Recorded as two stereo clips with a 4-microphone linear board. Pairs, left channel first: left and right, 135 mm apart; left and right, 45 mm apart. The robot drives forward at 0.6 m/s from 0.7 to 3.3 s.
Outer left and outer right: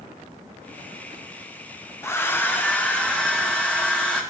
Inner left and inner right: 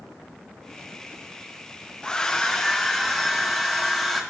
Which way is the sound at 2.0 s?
20° left (ahead or behind).